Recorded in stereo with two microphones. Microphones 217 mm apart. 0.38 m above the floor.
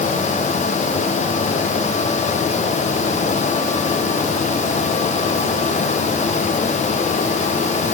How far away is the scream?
I don't hear a scream.